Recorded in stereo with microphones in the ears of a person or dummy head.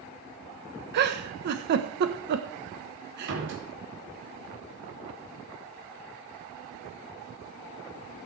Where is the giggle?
50° right (ahead or behind), 1.1 m.